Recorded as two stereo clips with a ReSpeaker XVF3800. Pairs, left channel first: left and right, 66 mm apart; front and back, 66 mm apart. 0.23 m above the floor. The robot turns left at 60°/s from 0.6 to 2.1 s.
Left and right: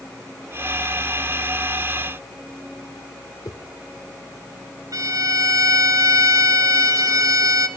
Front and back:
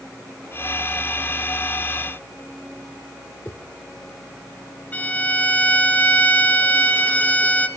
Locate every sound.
3.5 s a whoosh: 55° left, 1.9 m
4.9 s a violin: 65° right, 1.4 m